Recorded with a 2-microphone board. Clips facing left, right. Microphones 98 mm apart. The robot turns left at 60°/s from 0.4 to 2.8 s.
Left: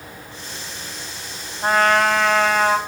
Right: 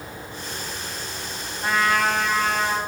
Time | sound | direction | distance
1.6 | a trumpet | 140° left | 2.5 m